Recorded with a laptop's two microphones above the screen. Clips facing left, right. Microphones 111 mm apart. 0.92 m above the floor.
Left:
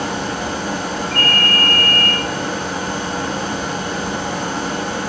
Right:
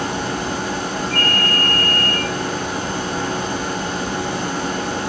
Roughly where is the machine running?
Left.